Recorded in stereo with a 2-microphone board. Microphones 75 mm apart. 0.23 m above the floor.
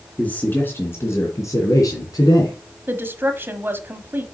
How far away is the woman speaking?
About 1.0 m.